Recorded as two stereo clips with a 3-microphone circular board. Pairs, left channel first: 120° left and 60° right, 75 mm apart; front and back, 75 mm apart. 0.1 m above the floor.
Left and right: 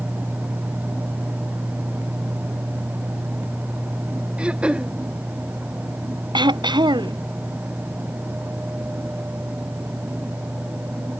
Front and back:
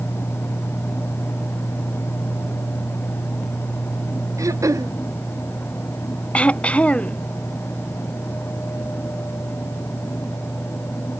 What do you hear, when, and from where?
4.4 s throat clearing: 135° right
6.3 s throat clearing: 75° right